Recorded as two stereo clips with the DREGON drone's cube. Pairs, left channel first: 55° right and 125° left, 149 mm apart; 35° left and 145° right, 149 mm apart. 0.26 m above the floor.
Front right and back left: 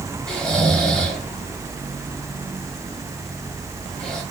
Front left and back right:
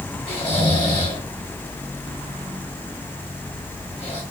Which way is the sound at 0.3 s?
25° left.